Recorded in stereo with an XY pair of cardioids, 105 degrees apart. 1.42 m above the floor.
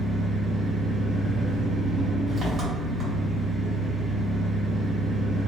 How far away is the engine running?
About 1.5 m.